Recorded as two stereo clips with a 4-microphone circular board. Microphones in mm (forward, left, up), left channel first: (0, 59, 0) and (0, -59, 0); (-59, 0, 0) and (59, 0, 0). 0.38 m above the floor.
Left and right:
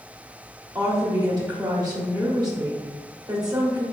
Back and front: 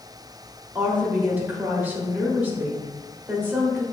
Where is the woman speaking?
65° right, 1.2 m.